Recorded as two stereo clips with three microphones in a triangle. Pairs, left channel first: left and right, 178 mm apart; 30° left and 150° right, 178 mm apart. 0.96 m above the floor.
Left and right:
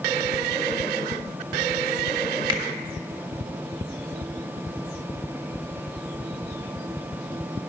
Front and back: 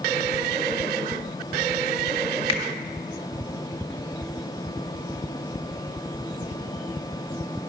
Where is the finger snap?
30° right, 1.4 m.